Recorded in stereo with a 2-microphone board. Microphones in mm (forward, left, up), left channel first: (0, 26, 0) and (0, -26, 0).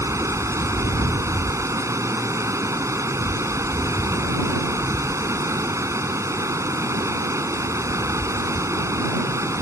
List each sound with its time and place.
0.0 s running water: 75° right (ahead or behind)